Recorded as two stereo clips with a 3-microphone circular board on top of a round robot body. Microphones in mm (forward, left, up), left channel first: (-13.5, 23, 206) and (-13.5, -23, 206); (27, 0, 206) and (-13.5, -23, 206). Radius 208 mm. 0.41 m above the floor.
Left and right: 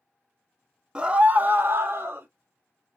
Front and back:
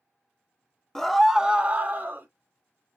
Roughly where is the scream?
Ahead right.